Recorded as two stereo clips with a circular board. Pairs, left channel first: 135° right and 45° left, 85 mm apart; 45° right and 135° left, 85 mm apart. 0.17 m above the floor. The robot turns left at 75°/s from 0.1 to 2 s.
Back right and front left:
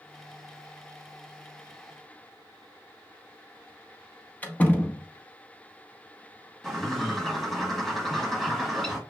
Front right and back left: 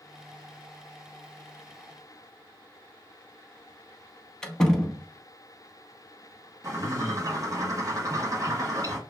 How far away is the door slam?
About 0.8 m.